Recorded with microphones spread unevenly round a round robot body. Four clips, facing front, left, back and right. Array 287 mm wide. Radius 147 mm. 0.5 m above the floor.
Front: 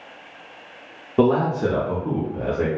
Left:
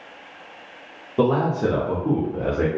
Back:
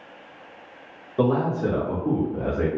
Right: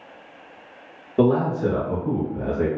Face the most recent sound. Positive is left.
turn(degrees=120)